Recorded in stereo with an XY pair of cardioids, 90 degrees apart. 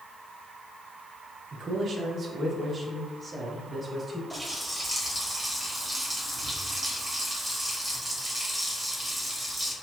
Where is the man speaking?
60° right, 0.9 m; by 4.2 s 20° right, 2 m.